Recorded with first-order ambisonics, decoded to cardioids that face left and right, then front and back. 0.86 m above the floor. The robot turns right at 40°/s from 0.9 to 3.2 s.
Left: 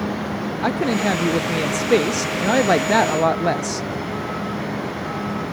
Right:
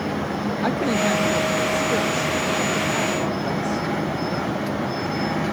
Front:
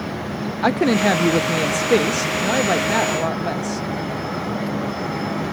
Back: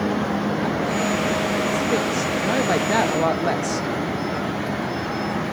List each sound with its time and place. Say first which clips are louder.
0.6 s a woman speaking: left 2 dB, front 10 dB; 15° left; by 3.9 s 105° left